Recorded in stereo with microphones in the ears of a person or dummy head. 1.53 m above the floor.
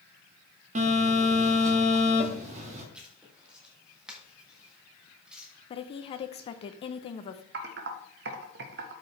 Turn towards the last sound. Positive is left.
turn(degrees=-65)  # may be behind; listen again after turning